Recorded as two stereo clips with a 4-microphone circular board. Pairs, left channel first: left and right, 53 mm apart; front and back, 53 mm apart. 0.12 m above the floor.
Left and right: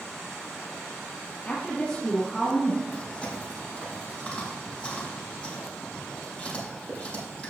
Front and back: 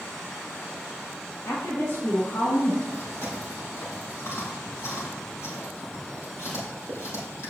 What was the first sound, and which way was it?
A woman speaking, 35° left.